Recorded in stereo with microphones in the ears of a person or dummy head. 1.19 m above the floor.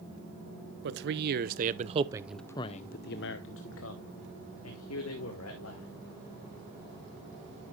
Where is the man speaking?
60° right (ahead or behind), 1.3 m; by 5.9 s 75° left (ahead or behind), 2.5 m.